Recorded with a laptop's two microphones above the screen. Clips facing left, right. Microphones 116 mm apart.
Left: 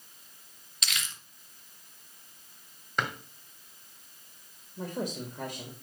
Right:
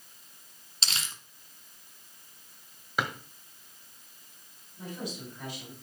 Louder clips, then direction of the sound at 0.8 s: Even; 35° right (ahead or behind).